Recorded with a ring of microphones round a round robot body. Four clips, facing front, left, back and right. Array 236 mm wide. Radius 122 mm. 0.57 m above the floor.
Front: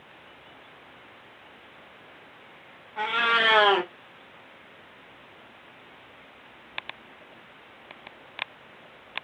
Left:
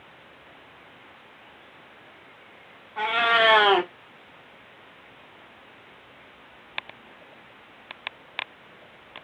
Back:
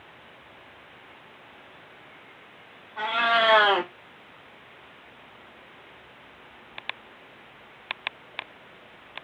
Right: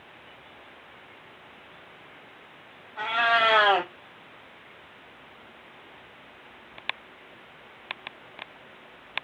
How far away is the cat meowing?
About 1.3 m.